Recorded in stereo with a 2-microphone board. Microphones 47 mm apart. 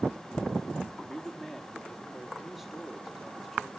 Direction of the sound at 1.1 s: 5° right (ahead or behind).